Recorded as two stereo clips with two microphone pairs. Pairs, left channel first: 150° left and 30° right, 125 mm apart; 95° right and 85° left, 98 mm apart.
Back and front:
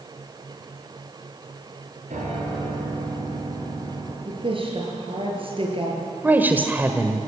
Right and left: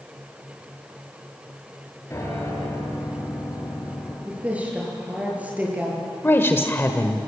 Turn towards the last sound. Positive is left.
turn(degrees=-80)